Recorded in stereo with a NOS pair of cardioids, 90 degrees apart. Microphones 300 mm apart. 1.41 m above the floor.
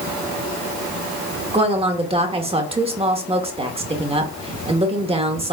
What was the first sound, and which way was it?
A woman speaking, 20° right.